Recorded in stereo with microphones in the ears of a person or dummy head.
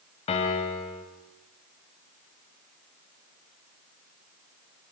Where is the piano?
30° left (ahead or behind), 2.5 m.